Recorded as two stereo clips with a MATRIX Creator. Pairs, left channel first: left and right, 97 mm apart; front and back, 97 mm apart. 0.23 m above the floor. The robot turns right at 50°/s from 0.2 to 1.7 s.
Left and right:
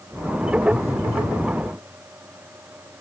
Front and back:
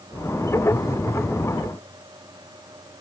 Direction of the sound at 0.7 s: 30° left.